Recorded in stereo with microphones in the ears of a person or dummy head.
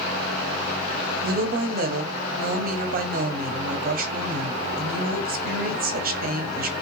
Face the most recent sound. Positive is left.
turn(degrees=-45)  # may be behind; listen again after turning